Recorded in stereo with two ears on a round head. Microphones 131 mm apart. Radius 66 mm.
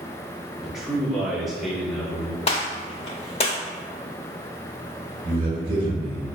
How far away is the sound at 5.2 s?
About 0.9 m.